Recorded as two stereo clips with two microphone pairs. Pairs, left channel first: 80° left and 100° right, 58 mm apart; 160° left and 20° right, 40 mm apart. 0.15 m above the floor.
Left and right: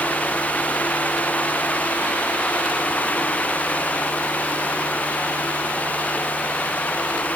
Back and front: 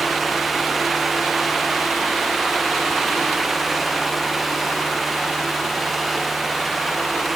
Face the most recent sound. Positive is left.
No sound to turn to.